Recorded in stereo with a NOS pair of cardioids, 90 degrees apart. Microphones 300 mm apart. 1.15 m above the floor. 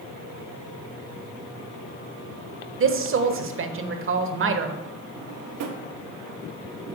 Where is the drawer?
65° right, 0.9 m.